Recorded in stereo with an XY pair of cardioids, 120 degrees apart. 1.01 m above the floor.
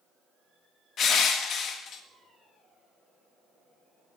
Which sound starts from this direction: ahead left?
Crushing, at 1.0 s.